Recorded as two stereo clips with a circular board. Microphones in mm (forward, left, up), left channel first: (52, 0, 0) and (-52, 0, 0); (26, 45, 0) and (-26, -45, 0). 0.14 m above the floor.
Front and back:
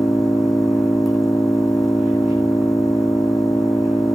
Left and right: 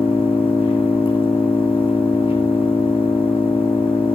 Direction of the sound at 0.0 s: 90° left.